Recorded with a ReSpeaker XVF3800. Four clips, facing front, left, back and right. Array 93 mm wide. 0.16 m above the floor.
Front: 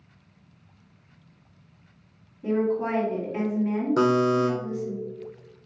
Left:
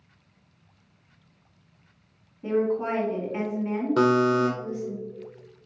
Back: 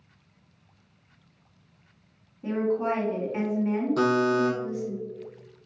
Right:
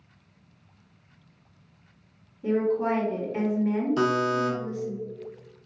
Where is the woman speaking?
110° left, 1.8 m.